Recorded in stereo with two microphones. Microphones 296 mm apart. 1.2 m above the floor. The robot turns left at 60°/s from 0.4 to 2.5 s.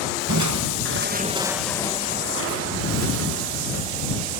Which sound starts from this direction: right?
Crushing, at 0.3 s.